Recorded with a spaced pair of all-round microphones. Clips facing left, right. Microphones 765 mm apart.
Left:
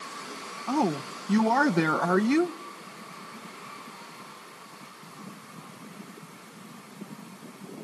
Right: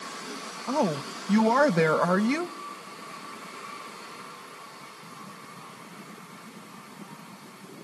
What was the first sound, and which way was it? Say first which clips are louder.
A woman speaking: left 1 dB; 10° right (ahead or behind).